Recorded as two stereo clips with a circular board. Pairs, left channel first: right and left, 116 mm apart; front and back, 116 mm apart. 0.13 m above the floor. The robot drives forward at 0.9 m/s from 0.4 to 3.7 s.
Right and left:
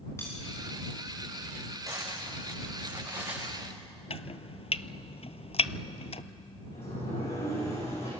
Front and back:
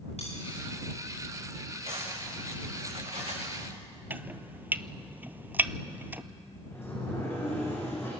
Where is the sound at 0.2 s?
25° right, 10 m.